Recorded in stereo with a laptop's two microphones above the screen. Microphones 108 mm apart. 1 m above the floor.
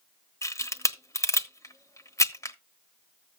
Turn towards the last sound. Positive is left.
turn(degrees=30)  # may be behind; listen again after turning